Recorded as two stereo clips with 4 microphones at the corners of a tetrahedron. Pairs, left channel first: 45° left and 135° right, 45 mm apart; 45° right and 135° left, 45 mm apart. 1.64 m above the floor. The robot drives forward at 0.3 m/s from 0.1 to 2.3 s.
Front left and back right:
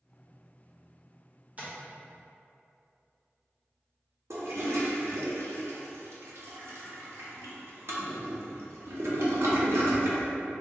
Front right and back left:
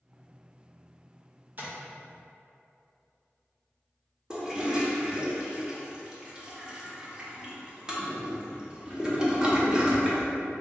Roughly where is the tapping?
Behind.